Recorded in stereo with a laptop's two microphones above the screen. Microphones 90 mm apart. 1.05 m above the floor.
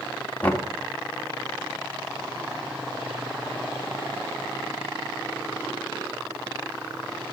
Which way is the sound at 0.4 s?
15° left (ahead or behind).